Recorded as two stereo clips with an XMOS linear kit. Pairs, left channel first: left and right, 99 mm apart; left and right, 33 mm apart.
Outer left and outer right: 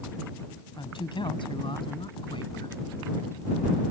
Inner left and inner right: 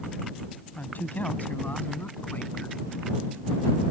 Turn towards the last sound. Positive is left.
turn(degrees=60)  # may be behind; listen again after turning